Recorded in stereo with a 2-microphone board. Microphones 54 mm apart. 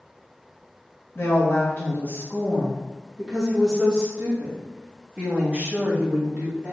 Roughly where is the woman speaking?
Left.